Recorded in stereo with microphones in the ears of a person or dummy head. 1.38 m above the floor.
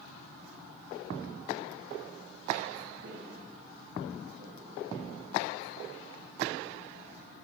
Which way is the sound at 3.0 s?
55° right (ahead or behind).